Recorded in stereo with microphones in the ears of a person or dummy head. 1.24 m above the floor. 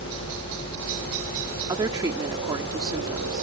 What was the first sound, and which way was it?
A helicopter, 70° right (ahead or behind).